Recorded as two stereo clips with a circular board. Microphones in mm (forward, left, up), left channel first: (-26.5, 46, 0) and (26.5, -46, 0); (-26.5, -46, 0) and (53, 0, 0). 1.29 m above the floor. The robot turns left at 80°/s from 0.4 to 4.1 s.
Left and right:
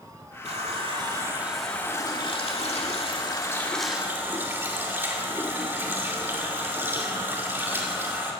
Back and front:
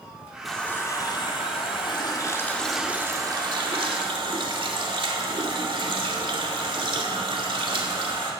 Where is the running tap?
60° right, 2 m; by 8.3 s 10° left, 2 m.